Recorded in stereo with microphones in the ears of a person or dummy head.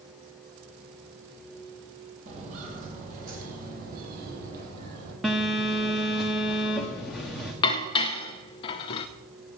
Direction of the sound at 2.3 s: 40° right (ahead or behind).